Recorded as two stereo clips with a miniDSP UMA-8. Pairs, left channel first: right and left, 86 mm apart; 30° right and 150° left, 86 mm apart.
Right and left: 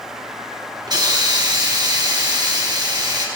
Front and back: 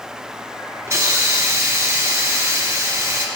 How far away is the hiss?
About 1.6 m.